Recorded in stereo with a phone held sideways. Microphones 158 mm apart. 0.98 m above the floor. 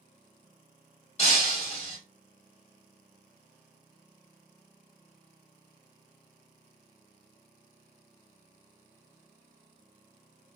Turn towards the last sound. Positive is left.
turn(degrees=45)  # may be behind; listen again after turning